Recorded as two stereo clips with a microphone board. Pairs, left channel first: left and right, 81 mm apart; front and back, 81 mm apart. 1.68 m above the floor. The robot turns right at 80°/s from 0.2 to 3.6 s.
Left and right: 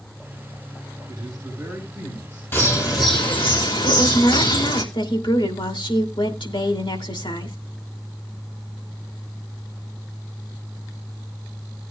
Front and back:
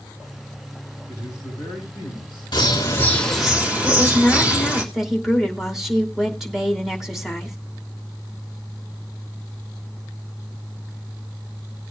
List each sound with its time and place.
1.1 s a man speaking: 65° right, 7.5 m; by 3.5 s 130° left, 7.5 m
2.5 s a bird: 25° left, 2.5 m; by 4.8 s 110° left, 2.5 m
3.8 s a woman speaking: 95° left, 2.5 m